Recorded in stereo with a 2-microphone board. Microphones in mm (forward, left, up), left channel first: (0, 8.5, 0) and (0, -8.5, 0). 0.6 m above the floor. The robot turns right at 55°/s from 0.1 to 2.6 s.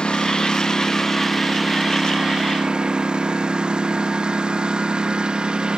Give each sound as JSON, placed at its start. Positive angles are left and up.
{"t": 0.0, "sound": "a lawn mower", "side_deg": 70}